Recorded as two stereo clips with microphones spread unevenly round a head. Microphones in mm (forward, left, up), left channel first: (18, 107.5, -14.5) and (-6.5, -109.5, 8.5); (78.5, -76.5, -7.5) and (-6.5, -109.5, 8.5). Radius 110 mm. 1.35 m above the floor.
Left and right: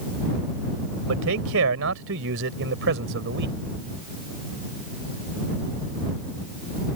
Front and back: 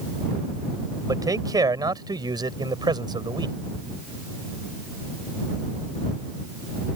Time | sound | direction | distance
1.1 | a man speaking | 115° right | ?